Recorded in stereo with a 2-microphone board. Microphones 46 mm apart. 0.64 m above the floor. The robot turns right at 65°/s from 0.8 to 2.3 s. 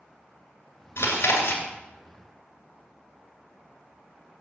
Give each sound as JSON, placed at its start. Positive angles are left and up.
{"t": 1.0, "sound": "chewing", "azimuth_deg": 70, "distance_m": 2.0}